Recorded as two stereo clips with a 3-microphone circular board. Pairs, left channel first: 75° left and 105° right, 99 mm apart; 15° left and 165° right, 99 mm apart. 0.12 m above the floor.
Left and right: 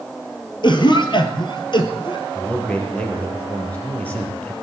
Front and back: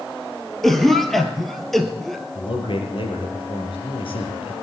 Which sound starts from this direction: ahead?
A man speaking, at 2.4 s.